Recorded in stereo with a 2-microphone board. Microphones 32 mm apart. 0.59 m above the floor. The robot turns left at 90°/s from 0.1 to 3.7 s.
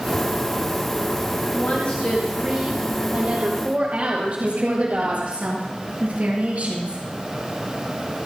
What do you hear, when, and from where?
1.5 s a woman speaking: 70° left, 3.5 m; by 5.4 s 125° right, 3.5 m
4.4 s a woman speaking: 50° right (ahead or behind), 10 m